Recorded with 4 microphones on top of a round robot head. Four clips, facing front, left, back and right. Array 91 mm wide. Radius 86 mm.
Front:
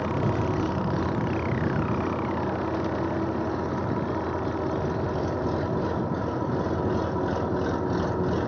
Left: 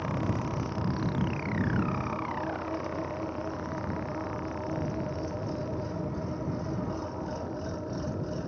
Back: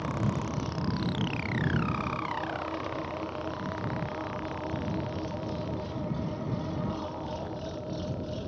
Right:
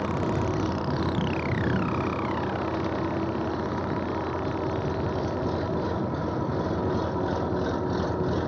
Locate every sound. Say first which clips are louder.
0.0 s an engine running: right 5 dB, front 6 dB; 40° right